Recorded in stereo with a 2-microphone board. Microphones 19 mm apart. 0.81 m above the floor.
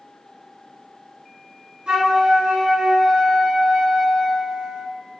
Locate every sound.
1.9 s a flute: 60° right (ahead or behind), 1.8 m